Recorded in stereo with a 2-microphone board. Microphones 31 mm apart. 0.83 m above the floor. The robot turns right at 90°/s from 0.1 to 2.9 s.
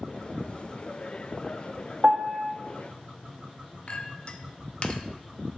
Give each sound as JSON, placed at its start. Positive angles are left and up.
{"t": 2.0, "sound": "a piano", "azimuth_deg": -130, "distance_m": 1.4}
{"t": 3.9, "sound": "a clink", "side_deg": 40, "distance_m": 0.7}